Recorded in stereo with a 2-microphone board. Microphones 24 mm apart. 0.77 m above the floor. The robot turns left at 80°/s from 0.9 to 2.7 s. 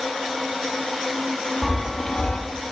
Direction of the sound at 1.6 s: 170° right.